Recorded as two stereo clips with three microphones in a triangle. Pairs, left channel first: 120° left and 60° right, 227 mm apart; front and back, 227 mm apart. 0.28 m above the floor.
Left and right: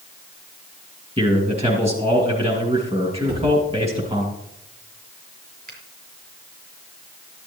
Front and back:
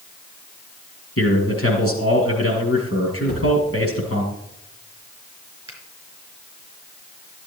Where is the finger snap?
105° right, 4 m.